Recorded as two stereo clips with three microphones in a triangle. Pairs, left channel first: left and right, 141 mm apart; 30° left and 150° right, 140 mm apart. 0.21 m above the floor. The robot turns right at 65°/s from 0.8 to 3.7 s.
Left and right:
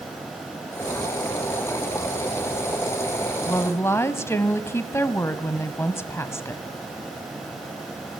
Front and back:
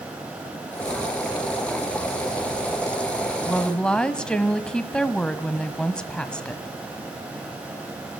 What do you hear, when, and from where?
3.5 s a woman speaking: 85° left, 1.2 m; by 6.6 s 100° left, 1.2 m